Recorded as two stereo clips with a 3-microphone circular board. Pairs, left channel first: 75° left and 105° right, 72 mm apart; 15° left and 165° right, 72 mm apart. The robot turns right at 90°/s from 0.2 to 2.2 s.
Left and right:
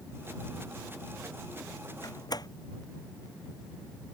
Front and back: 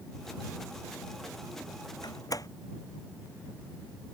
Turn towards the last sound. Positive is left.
turn(degrees=50)